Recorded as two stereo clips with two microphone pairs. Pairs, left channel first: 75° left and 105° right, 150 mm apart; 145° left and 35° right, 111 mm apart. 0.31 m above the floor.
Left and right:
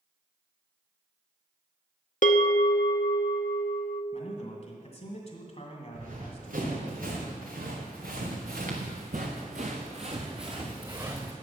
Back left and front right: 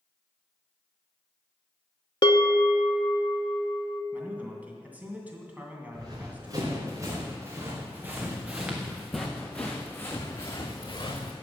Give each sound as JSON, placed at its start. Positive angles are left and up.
{"t": 2.2, "sound": "a bell", "azimuth_deg": 100, "distance_m": 0.5}
{"t": 4.1, "sound": "a man speaking", "azimuth_deg": 35, "distance_m": 2.0}
{"t": 5.9, "sound": "running footsteps", "azimuth_deg": -85, "distance_m": 3.5}